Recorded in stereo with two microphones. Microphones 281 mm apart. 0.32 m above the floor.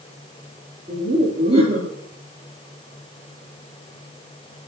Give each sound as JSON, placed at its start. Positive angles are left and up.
{"t": 0.9, "sound": "laughter", "side_deg": -15, "distance_m": 5.0}